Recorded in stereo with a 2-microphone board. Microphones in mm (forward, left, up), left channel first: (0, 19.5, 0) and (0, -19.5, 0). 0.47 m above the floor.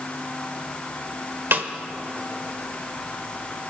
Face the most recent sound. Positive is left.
turn(degrees=-60)  # may be behind; listen again after turning